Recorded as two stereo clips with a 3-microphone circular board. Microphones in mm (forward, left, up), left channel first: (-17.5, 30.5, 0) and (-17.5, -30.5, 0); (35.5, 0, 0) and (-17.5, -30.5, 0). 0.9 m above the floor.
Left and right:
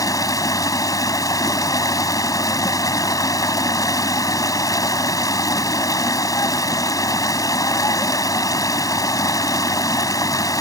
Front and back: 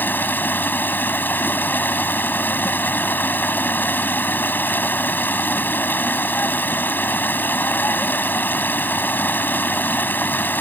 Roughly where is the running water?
Left.